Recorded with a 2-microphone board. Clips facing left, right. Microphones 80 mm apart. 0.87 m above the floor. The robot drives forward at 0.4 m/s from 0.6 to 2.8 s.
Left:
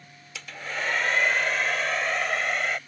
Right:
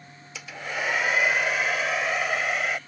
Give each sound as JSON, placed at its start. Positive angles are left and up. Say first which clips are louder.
{"t": 0.3, "sound": "a hair dryer", "louder": "right 1 dB", "side_deg": -10}